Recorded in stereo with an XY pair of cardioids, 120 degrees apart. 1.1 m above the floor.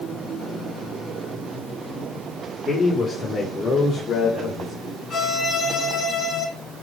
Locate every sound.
2.7 s a man speaking: 35° left, 2.5 m; by 4.7 s 55° left, 4 m
5.1 s a violin: 45° left, 2.5 m